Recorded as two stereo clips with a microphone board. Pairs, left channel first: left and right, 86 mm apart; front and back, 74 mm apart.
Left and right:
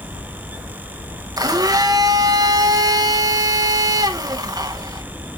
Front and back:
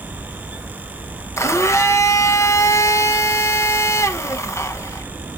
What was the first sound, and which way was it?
A blender, 50° right.